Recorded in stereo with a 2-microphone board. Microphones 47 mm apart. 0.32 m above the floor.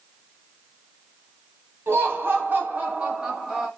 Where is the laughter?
60° right (ahead or behind), 2.0 m; by 3.7 s 5° right (ahead or behind), 1.5 m.